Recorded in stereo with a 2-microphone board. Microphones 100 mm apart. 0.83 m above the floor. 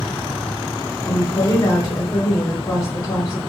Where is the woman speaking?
30° left (ahead or behind), 1.7 m.